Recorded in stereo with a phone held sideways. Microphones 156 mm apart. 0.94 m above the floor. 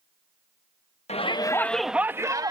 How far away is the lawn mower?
No lawn mower in this recording.